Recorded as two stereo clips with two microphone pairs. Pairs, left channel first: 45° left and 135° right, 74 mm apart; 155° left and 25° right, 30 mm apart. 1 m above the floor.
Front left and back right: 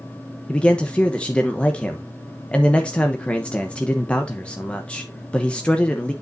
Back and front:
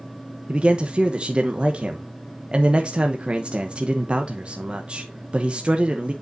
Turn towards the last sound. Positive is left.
turn(degrees=-20)